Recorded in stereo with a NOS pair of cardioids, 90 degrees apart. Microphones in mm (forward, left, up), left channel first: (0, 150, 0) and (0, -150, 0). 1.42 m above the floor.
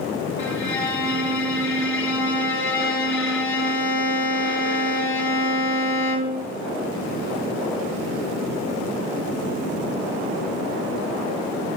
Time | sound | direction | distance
0.4 | a violin | 45° left | 1.4 m